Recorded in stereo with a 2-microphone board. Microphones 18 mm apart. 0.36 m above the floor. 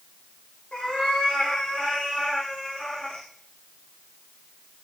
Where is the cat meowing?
80° left, 6 m.